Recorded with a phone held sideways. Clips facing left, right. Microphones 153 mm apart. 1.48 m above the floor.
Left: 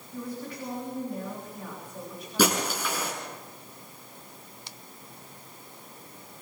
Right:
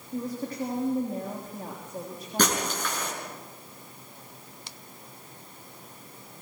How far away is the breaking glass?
About 6.5 m.